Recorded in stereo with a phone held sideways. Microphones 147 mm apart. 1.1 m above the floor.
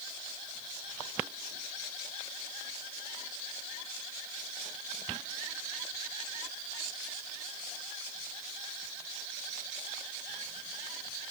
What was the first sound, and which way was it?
Only background noise.